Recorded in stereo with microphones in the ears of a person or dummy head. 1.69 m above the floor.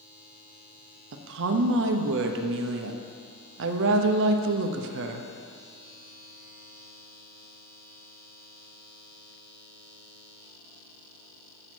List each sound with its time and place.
1.1 s a woman speaking: 70° right (ahead or behind), 0.9 m